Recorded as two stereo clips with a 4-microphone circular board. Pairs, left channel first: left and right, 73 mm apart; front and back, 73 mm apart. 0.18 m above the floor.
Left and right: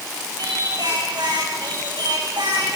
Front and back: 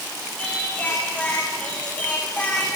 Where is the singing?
75° right, 6 m.